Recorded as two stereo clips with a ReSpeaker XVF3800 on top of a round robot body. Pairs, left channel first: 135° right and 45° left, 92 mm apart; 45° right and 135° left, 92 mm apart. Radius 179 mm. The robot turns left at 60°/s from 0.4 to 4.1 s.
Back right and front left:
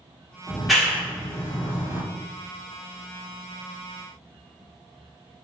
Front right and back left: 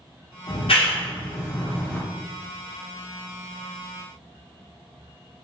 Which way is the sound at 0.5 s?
30° right.